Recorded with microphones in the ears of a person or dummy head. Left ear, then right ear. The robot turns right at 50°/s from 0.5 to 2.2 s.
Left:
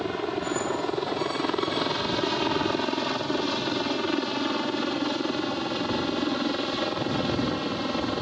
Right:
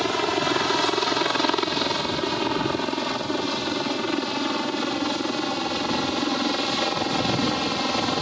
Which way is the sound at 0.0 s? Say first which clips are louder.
Right 6 dB; 65° right (ahead or behind).